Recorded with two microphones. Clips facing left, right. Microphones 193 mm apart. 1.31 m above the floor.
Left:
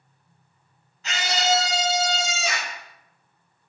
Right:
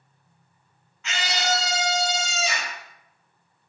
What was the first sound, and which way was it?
A scream, 35° left (ahead or behind).